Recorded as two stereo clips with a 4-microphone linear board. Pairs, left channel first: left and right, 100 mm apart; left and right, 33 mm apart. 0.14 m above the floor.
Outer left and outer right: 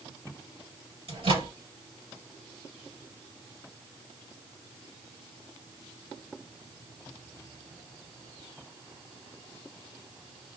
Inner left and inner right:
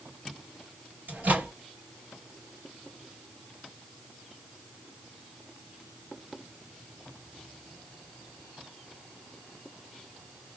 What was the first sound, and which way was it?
A microwave, 65° right (ahead or behind).